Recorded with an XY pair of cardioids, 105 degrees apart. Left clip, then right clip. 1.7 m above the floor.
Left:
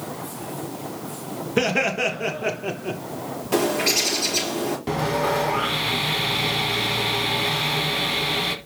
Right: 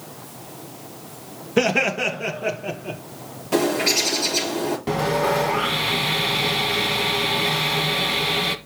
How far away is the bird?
About 5.5 m.